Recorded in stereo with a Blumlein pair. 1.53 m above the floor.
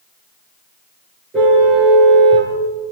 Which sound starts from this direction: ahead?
A car horn, at 1.3 s.